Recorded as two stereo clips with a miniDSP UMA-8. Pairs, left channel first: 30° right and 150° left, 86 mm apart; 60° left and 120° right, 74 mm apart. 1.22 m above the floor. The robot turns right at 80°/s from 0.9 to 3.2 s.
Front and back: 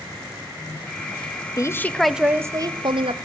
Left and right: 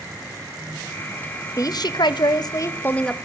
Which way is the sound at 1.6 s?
20° left.